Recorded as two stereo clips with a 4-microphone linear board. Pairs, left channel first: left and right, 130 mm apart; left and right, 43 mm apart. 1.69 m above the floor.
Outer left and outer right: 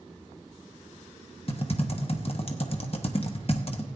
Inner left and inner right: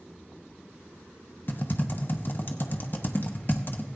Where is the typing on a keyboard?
45° left (ahead or behind), 0.9 m.